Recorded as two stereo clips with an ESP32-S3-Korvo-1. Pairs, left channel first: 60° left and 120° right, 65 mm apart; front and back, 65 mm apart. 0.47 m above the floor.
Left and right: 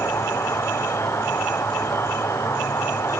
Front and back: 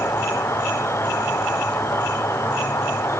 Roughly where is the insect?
Ahead left.